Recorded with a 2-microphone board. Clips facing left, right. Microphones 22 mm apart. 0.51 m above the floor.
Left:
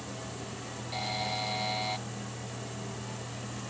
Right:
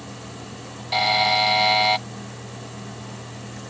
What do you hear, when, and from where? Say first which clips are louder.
0.9 s a buzzer: right 15 dB; 55° right (ahead or behind)